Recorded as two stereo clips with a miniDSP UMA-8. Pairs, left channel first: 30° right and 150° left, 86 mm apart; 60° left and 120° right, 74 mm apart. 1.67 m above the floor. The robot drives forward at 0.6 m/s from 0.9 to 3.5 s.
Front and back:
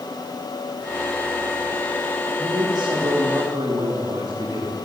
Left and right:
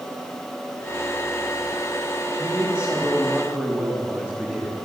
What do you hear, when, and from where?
2.4 s a man speaking: 170° left, 3 m